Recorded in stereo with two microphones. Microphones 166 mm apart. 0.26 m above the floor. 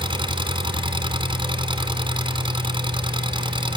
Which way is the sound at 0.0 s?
30° right (ahead or behind).